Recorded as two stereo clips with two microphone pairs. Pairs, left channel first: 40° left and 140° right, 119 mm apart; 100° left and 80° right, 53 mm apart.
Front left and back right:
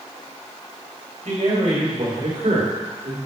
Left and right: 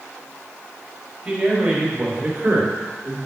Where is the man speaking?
140° right, 3.5 m; by 3.2 s 115° right, 2.5 m.